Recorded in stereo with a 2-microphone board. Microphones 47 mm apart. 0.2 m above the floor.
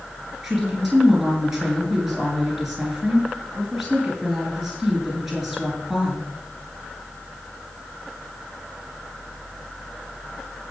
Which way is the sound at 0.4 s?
Centre (ahead or behind).